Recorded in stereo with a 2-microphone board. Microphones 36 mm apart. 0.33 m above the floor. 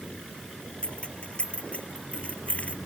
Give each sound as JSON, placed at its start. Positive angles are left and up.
{"t": 0.8, "sound": "keys jangling", "side_deg": 30}